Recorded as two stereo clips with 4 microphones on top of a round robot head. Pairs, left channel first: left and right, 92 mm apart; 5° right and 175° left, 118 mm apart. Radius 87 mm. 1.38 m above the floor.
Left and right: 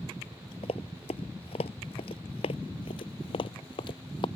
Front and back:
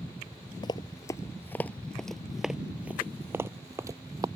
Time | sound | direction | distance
0.6 | running footsteps | 45° left | ?